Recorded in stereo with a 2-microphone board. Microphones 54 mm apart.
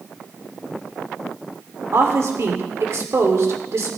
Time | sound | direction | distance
1.9 | a woman speaking | 60° right (ahead or behind) | 2 m